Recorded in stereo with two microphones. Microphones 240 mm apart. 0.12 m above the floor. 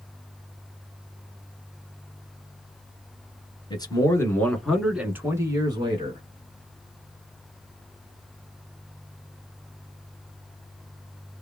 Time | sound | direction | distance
3.7 | a man speaking | 20° left (ahead or behind) | 1.3 m